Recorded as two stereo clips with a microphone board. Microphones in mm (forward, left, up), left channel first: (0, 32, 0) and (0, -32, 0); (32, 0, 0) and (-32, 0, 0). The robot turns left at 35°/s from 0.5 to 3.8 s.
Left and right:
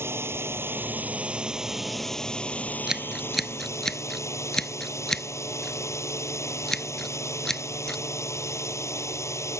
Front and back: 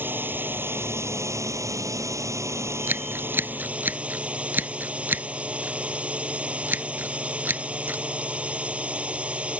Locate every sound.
0.0 s a drone: 130° right; by 9.6 s 115° left
2.9 s scissors: 165° right; by 8.0 s 165° left